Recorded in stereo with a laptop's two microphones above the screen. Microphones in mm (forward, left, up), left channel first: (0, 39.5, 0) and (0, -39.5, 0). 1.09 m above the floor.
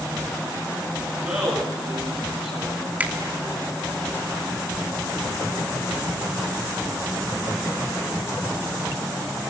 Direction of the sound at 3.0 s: 20° right (ahead or behind).